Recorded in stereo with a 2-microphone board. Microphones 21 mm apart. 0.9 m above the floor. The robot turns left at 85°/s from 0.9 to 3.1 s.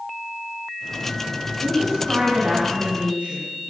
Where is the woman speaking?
5° right, 7 m; by 3.4 s 130° right, 7 m.